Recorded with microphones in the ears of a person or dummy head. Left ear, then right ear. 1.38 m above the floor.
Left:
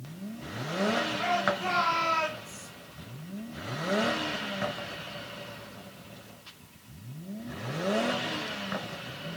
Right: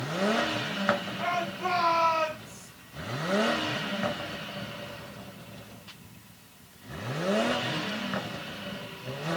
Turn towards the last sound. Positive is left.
turn(degrees=40)  # may be behind; listen again after turning